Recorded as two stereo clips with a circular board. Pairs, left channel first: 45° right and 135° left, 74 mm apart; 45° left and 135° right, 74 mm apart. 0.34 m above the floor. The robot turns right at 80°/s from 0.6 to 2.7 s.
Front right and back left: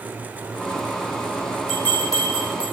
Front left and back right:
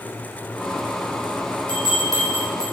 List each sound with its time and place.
1.7 s a bell: 130° right, 4.5 m; by 2.6 s 55° right, 4.5 m